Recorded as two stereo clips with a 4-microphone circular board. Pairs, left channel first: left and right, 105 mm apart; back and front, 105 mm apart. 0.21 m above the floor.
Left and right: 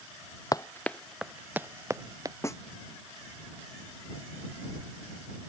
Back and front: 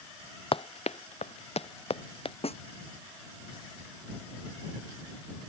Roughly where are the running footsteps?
Behind left.